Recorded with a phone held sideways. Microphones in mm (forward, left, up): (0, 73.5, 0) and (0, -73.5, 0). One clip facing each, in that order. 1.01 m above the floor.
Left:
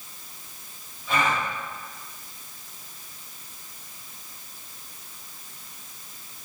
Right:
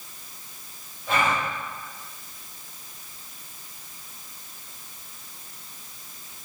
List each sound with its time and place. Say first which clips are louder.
1.1 s a gasp: right 1 dB; 50° right (ahead or behind), 6 m